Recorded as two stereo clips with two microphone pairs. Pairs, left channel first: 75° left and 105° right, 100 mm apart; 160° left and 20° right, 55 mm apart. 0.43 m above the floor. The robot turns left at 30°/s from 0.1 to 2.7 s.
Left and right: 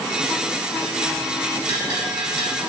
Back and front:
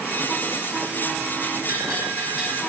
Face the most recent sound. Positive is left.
turn(degrees=-75)